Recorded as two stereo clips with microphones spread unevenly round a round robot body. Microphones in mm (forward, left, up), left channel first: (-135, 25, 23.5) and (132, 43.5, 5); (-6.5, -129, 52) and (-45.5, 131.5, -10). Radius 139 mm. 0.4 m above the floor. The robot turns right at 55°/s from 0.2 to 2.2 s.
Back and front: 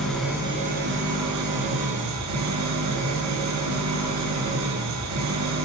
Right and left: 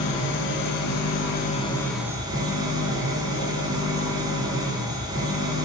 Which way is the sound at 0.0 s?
85° right.